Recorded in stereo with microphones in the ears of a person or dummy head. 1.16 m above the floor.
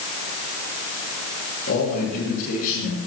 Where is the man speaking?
70° left (ahead or behind), 7.5 m.